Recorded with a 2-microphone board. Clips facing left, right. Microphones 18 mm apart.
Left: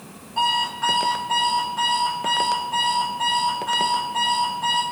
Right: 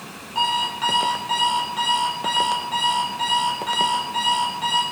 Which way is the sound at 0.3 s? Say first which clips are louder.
Even; 80° right.